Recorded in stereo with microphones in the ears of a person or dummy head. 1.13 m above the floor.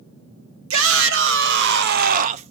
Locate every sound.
0.7 s a shout: 80° right, 1.3 m; by 2.5 s 35° right (ahead or behind), 0.6 m